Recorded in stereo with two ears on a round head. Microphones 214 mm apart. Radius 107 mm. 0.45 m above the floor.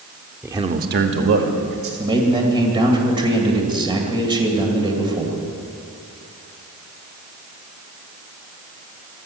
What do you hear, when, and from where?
0.4 s a man speaking: 5° right (ahead or behind), 0.7 m; by 1.9 s 60° right (ahead or behind), 2 m
2.0 s a man speaking: 20° right (ahead or behind), 2 m